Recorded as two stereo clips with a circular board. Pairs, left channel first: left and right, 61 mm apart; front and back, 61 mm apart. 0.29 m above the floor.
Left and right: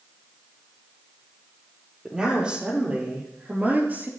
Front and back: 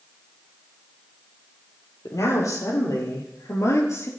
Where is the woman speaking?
15° right, 7 m; by 4.1 s 35° right, 5.5 m.